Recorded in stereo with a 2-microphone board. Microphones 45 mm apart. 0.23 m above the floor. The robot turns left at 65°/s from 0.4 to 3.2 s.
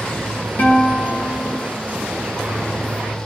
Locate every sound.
0.6 s a guitar: 125° left, 3 m; by 1.8 s 45° left, 3 m